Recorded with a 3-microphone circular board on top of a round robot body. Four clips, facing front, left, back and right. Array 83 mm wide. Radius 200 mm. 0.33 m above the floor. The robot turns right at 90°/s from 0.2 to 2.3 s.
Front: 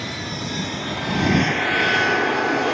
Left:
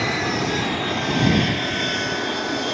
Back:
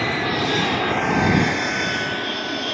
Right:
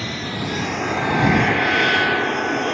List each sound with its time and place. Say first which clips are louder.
0.0 s an aircraft: left 4 dB, back 8 dB; 145° left; by 2.7 s 25° right